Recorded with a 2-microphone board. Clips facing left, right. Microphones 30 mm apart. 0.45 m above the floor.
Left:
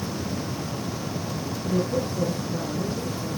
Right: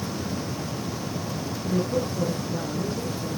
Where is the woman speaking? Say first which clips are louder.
Even; centre (ahead or behind), 5 m.